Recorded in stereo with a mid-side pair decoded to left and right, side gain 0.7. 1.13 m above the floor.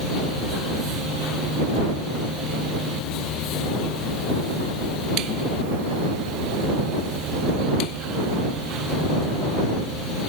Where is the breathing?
I don't hear breathing.